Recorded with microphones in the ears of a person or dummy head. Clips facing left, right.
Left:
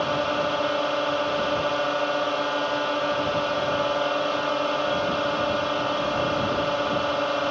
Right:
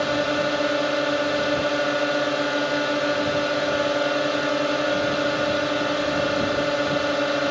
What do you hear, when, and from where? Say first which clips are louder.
0.0 s a drone: right 2 dB; 15° right (ahead or behind)